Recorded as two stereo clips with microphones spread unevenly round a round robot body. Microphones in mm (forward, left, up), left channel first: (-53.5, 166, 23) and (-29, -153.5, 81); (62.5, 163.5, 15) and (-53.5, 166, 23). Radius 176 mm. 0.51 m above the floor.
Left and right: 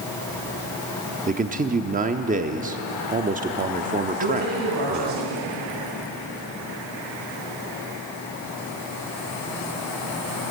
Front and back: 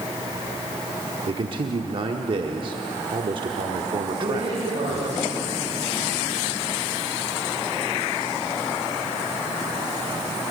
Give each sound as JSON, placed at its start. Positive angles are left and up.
{"t": 1.3, "sound": "a man speaking", "azimuth_deg": -155, "distance_m": 1.1}
{"t": 4.2, "sound": "a man speaking", "azimuth_deg": -115, "distance_m": 8.5}